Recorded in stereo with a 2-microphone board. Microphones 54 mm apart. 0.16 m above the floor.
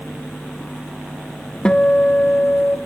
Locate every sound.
1.6 s a guitar: 15° left (ahead or behind), 0.6 m